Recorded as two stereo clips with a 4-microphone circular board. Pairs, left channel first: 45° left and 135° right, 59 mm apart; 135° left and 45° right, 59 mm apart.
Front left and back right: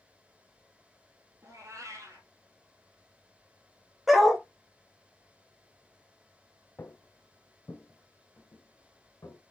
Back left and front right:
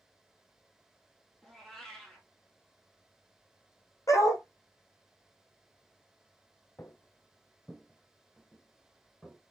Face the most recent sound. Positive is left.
turn(degrees=60)